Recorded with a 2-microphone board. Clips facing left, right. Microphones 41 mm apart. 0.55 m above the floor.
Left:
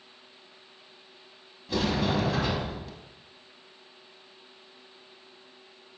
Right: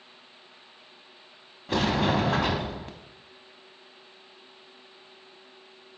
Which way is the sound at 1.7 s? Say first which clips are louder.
Right 3 dB; 50° right (ahead or behind).